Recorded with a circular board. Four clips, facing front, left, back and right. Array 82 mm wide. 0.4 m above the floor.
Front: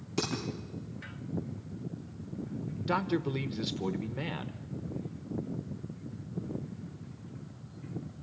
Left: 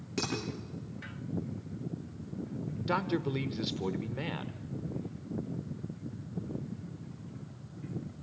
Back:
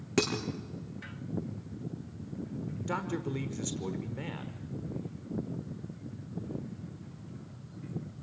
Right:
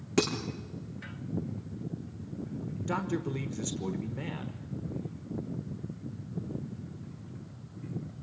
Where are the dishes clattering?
145° right, 6 m.